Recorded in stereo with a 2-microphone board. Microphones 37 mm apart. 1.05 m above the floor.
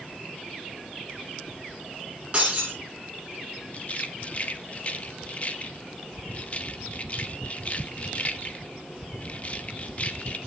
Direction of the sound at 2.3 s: 30° right (ahead or behind).